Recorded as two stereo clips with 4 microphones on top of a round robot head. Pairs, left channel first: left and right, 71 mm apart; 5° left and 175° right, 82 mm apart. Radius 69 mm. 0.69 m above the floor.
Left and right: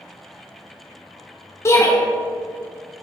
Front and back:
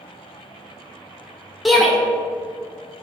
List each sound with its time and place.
1.6 s a shout: 95° left, 1.1 m